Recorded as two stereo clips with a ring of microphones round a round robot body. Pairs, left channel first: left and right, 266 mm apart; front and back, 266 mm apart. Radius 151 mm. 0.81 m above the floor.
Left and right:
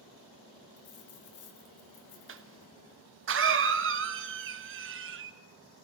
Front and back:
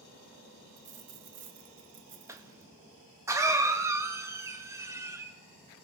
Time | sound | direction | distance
0.8 | a dropped coin | 135° left | 2 m
2.3 | a cough | 105° right | 1.1 m